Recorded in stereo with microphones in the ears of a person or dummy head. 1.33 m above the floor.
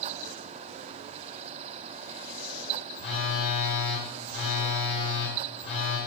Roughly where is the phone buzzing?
Left.